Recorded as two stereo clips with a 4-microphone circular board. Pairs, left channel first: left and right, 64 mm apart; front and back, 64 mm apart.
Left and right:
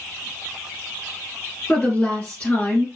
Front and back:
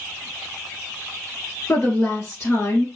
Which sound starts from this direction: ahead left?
A woman speaking, at 1.7 s.